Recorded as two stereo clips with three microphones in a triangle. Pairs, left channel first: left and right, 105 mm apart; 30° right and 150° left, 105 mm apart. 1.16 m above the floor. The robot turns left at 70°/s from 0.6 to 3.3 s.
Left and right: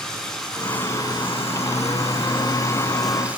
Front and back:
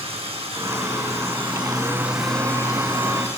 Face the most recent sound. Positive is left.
turn(degrees=-15)